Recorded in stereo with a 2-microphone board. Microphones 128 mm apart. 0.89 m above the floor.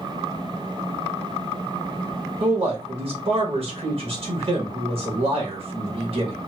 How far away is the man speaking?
About 1.2 m.